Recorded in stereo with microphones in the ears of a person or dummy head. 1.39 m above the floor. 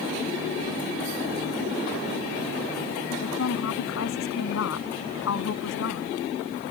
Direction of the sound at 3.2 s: 75° left (ahead or behind).